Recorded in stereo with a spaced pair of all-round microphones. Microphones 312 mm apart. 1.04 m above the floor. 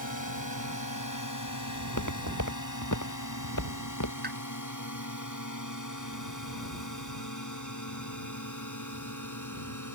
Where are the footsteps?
70° left (ahead or behind); by 4.1 s 80° left.